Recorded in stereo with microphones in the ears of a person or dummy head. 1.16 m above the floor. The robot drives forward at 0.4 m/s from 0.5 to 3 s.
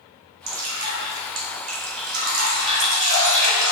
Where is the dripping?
75° right (ahead or behind), 1.6 m; by 3.7 s 70° right (ahead or behind), 1.7 m.